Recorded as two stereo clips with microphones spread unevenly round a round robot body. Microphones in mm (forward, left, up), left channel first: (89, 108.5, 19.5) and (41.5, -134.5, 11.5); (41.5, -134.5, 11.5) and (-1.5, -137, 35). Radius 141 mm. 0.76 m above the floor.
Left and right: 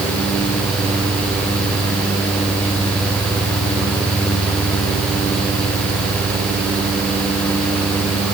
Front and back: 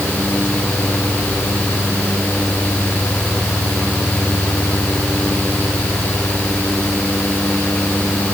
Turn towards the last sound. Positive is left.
No sound to turn to.